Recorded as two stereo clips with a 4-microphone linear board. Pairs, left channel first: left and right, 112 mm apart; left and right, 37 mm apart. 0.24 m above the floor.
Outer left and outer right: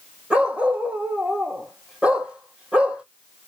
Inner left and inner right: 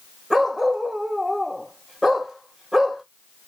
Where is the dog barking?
10° right (ahead or behind), 3.5 m.